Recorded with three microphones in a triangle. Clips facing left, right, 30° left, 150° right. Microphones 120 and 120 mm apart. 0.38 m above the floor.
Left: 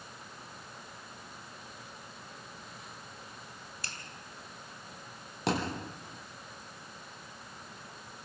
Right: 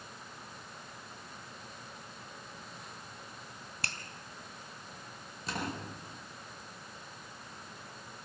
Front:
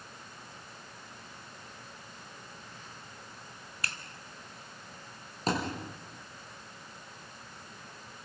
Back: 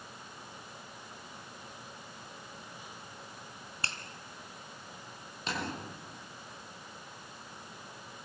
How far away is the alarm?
I don't hear an alarm.